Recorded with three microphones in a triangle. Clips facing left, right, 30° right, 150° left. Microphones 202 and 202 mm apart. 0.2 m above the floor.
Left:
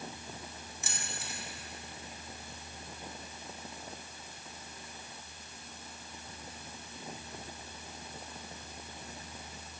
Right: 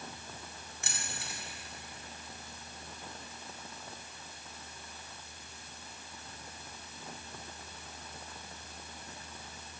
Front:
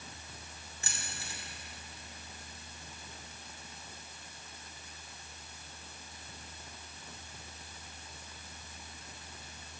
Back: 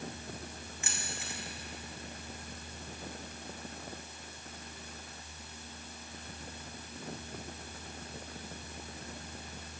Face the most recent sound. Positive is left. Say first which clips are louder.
# even, back 2 dB
turn(degrees=-80)